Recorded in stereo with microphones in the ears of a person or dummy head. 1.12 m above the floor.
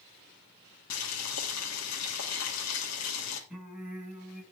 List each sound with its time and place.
0.9 s boiling: 75° left (ahead or behind), 2.5 m
3.5 s singing: 10° right (ahead or behind), 7 m